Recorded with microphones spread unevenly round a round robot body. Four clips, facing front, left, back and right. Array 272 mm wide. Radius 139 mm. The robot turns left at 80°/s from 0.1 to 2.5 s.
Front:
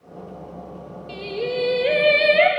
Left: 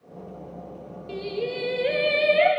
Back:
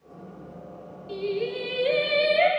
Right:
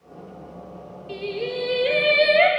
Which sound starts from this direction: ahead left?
Singing, at 1.1 s.